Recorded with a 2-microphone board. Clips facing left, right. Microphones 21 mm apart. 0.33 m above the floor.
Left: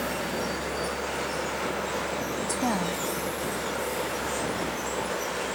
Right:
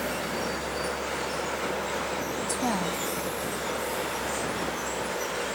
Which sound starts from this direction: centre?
A woman speaking, at 2.5 s.